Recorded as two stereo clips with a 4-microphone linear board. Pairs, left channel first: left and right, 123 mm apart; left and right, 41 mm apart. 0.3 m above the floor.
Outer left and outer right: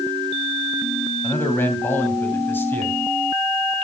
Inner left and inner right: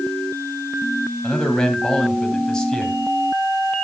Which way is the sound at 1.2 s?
15° left (ahead or behind).